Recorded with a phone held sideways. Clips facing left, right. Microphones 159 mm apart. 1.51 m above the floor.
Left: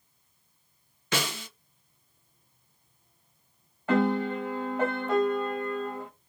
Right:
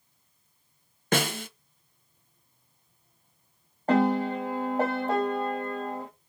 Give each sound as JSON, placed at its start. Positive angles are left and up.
{"t": 1.1, "sound": "a snare drum", "side_deg": -50, "distance_m": 0.7}
{"t": 3.9, "sound": "a piano", "side_deg": -40, "distance_m": 1.4}